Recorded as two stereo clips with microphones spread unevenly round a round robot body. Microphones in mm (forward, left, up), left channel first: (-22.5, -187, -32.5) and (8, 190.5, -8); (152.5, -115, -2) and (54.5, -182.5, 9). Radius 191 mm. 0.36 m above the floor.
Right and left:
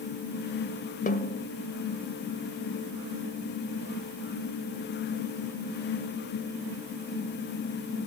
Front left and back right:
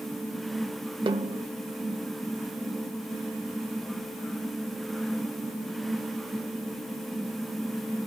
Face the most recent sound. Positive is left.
turn(degrees=-145)